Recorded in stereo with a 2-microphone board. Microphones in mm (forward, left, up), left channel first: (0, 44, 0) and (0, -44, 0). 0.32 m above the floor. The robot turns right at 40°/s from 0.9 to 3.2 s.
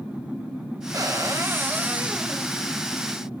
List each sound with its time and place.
0.9 s a cupboard door: 65° right, 1.3 m; by 2.5 s straight ahead, 1.3 m